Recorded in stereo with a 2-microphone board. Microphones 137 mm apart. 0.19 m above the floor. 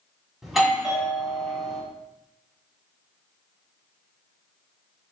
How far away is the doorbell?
About 1.4 m.